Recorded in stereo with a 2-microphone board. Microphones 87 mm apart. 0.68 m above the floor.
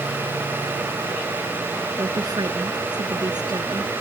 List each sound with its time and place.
2.0 s a woman speaking: 50° right (ahead or behind)